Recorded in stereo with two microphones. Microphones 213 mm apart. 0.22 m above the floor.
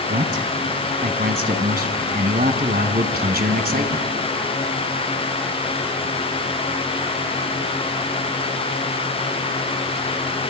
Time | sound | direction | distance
0.1 | a man speaking | 45° right (ahead or behind) | 1.7 m